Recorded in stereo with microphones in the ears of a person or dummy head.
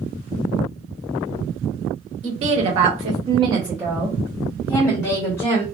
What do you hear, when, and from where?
2.2 s a woman speaking: 40° right (ahead or behind), 0.9 m; by 5.6 s 20° left (ahead or behind), 1.3 m